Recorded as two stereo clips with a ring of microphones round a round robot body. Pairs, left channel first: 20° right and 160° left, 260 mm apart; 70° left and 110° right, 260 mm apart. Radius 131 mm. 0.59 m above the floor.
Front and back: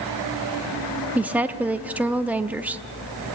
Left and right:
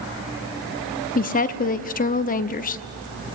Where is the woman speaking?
80° left, 0.7 m.